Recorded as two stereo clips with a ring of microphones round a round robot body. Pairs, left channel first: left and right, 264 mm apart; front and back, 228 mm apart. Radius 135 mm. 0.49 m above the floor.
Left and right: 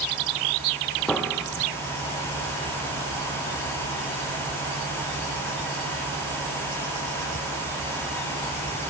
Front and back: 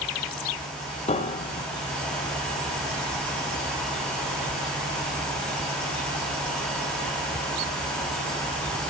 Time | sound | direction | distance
1.1 | a piano | 5° left | 1.1 m